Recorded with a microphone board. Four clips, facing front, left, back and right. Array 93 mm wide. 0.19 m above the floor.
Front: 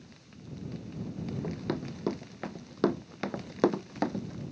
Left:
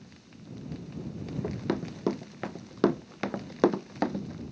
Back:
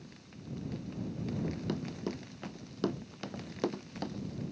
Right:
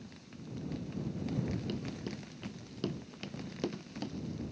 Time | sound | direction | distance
1.4 | running footsteps | 70° left | ?